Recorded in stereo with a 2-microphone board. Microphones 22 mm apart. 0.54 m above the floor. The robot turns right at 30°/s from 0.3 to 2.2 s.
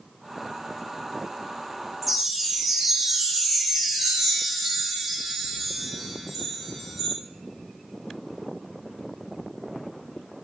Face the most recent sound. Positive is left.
turn(degrees=-15)  # may be behind; listen again after turning